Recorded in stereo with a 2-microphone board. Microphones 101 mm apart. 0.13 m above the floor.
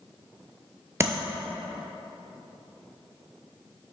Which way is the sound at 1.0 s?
30° right (ahead or behind).